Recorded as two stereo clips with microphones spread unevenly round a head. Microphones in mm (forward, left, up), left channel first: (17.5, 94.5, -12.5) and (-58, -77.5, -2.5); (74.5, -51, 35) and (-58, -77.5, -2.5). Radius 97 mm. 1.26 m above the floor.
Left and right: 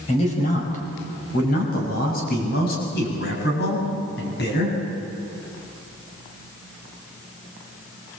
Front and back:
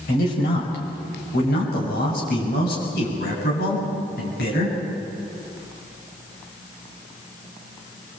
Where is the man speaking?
10° left, 5.5 m; by 4.8 s 25° left, 8 m.